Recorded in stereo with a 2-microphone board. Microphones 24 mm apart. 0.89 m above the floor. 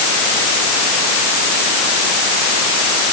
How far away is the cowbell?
No cowbell in this recording.